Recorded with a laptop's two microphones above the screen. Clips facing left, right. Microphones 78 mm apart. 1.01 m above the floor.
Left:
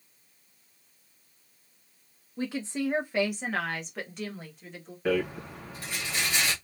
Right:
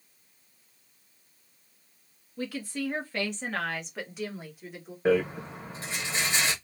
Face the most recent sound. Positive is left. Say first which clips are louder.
# right 3 dB
turn(degrees=-30)  # may be behind; listen again after turning